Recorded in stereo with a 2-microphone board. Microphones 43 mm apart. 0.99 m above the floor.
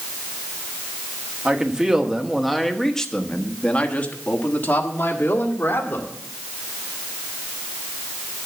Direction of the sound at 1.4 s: 20° right (ahead or behind).